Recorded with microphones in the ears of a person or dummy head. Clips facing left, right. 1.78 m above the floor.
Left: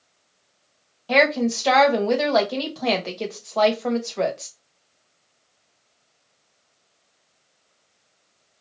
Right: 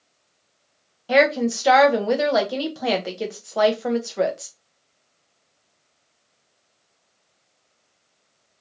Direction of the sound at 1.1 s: 10° right (ahead or behind).